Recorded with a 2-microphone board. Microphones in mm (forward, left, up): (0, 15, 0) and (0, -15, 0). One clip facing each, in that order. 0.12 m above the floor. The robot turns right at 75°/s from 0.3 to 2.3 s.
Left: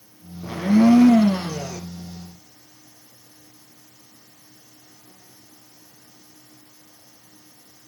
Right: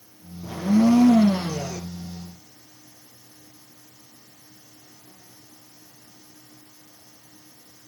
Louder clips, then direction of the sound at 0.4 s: Left 3 dB; 60° left.